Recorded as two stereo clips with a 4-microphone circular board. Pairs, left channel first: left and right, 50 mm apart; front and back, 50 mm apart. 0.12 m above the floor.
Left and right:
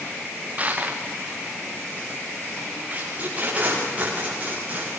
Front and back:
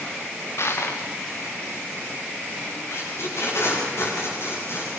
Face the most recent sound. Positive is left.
turn(degrees=-30)